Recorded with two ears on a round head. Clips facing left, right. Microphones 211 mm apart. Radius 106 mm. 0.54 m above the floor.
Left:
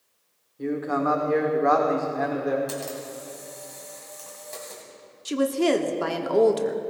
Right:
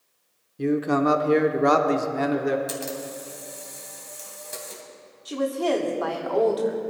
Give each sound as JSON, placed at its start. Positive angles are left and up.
{"t": 0.6, "sound": "a man speaking", "side_deg": -40, "distance_m": 1.3}
{"t": 2.7, "sound": "a camera shutter", "side_deg": -20, "distance_m": 2.0}
{"t": 5.2, "sound": "a woman speaking", "side_deg": 35, "distance_m": 0.9}